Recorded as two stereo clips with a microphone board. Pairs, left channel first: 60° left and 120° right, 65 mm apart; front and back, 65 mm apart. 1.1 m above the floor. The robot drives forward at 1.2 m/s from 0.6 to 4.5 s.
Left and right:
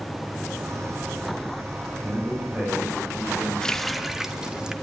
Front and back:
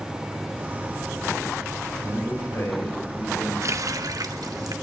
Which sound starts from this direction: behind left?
A running tap, at 3.6 s.